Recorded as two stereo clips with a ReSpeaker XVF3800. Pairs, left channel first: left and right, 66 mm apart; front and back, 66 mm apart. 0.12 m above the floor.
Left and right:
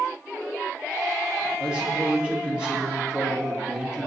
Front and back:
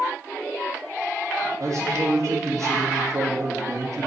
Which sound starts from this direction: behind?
A man speaking, at 1.6 s.